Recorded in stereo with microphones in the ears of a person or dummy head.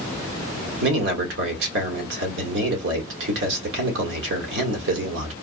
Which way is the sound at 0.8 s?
75° right (ahead or behind).